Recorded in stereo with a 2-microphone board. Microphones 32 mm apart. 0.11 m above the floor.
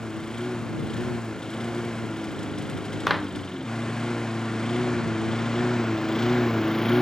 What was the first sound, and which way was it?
A lawn mower, 25° left (ahead or behind).